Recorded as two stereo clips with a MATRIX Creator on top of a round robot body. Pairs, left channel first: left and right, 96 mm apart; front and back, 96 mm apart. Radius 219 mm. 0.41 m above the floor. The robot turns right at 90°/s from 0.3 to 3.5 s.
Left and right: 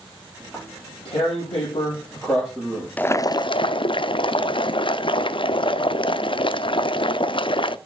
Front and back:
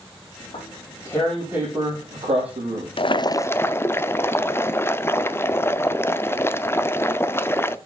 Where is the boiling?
15° left, 0.7 m; by 7.8 s 65° left, 0.7 m.